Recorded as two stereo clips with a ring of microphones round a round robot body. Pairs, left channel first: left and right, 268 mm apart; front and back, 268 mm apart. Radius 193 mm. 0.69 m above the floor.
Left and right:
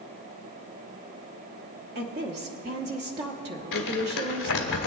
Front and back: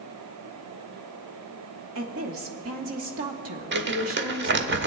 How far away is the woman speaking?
About 0.9 m.